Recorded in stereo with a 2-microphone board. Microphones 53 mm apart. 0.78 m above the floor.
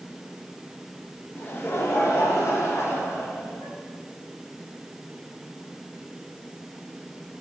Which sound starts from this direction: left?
Laughter, at 1.4 s.